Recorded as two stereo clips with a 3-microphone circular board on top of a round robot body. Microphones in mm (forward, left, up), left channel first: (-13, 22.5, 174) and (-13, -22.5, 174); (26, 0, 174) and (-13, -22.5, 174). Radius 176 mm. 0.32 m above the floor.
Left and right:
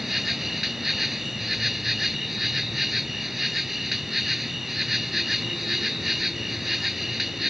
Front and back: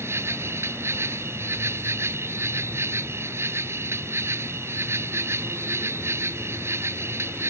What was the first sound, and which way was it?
An insect, 175° right.